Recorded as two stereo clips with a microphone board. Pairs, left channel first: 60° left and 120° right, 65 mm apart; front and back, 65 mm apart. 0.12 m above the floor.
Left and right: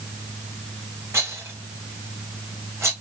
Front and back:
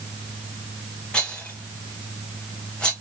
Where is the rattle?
75° right, 1.3 m.